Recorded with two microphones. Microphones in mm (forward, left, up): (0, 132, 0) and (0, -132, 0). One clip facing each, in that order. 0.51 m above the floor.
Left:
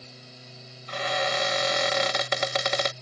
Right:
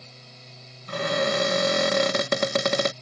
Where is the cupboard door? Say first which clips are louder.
Right 5 dB; 50° right (ahead or behind).